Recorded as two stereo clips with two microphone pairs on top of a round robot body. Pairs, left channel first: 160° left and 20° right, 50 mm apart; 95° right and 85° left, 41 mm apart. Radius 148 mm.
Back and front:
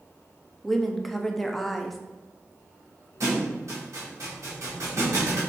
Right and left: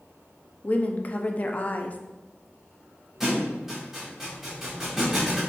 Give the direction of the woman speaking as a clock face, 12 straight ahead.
4 o'clock.